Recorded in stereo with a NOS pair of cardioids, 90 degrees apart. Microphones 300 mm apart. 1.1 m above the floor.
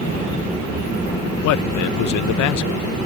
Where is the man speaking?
70° left.